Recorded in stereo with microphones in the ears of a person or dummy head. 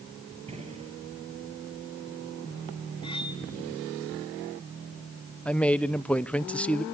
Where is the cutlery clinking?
25° left (ahead or behind), 1.7 m.